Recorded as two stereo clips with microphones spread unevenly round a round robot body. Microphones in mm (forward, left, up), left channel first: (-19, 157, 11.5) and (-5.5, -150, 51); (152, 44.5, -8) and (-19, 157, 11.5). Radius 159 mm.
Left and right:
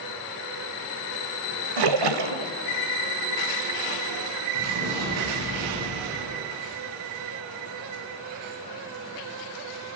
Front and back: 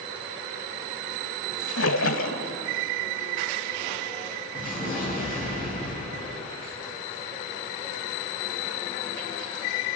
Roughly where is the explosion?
Behind right.